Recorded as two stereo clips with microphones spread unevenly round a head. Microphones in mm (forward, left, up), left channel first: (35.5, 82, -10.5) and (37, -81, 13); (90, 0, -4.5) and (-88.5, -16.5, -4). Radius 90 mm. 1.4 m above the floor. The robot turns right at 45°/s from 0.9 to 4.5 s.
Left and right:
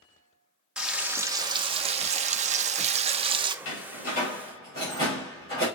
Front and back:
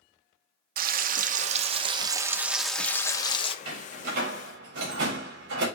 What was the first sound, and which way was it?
Frying, 165° right.